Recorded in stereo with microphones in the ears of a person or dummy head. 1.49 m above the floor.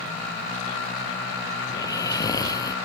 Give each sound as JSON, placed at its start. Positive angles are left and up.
{"t": 1.7, "sound": "snoring", "side_deg": 25}